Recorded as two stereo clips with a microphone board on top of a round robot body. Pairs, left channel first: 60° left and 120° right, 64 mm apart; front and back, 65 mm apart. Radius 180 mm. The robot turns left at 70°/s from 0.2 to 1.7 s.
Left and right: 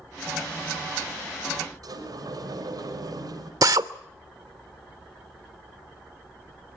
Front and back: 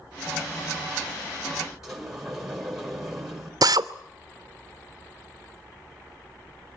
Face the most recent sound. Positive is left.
turn(degrees=-150)